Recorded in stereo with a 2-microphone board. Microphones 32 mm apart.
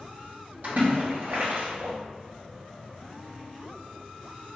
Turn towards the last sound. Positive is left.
turn(degrees=-60)  # may be behind; listen again after turning